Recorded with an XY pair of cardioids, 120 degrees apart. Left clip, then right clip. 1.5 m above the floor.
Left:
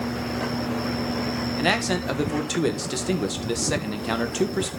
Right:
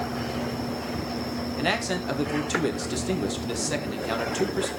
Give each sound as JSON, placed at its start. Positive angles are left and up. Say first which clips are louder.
{"t": 1.6, "sound": "a man speaking", "louder": "left 3 dB", "azimuth_deg": 20, "distance_m": 1.7}